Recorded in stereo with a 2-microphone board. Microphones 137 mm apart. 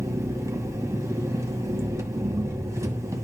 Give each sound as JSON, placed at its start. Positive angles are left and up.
{"t": 0.0, "sound": "an engine running", "side_deg": -20, "distance_m": 1.5}